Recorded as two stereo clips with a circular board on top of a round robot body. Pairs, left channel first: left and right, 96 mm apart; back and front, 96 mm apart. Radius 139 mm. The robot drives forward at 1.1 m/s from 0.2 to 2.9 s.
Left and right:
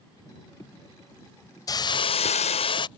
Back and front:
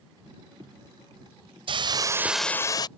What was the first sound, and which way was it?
A hiss, 35° left.